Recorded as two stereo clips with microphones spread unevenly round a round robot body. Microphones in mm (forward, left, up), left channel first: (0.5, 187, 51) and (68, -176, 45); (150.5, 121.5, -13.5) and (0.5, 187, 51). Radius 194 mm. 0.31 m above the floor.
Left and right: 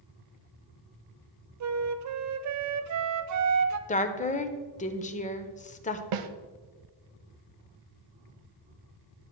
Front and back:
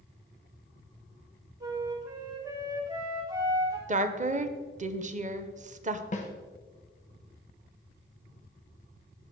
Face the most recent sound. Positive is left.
turn(degrees=-55)